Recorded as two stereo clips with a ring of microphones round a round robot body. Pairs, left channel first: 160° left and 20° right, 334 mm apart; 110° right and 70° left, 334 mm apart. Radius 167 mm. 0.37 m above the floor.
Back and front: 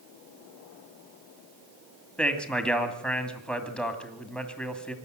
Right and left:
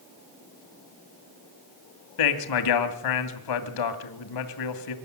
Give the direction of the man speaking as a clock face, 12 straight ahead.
4 o'clock.